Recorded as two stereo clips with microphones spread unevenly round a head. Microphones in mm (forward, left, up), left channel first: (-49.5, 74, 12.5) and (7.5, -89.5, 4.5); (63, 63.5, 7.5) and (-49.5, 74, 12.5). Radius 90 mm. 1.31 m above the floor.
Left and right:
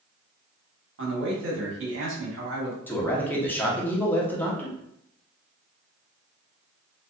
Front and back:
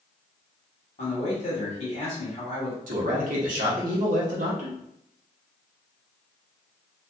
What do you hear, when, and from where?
1.0 s a man speaking: 50° right, 1.1 m
2.9 s a man speaking: 170° right, 0.8 m